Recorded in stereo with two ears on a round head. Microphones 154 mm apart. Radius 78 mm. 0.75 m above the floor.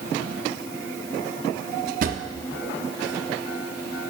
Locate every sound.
2.0 s a drawer: 50° right (ahead or behind), 0.5 m